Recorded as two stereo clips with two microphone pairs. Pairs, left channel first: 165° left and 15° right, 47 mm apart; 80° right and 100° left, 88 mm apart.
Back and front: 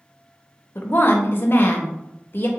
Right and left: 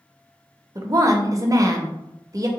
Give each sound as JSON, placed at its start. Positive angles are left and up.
{"t": 0.8, "sound": "a woman speaking", "azimuth_deg": 140, "distance_m": 0.6}